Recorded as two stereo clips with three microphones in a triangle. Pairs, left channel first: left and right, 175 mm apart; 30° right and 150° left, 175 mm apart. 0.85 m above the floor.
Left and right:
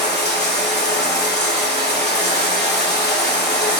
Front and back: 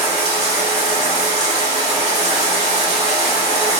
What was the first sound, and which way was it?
Running water, 100° left.